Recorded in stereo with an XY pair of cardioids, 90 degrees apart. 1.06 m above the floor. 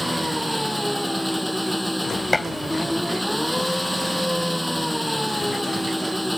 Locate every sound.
0.0 s an engine running: straight ahead
2.3 s dishes clattering: 15° left